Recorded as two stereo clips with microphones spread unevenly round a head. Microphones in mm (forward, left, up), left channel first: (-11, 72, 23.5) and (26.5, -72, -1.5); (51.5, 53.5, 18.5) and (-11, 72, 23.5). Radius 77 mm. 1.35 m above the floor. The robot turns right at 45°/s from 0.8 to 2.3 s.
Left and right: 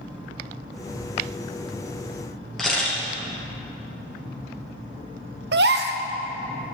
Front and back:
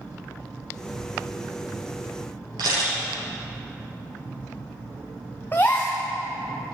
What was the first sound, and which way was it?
A camera shutter, 170° right.